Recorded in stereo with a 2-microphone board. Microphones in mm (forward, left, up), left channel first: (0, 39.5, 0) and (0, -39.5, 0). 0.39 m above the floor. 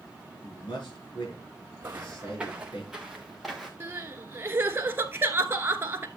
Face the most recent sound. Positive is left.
turn(degrees=-30)  # may be behind; listen again after turning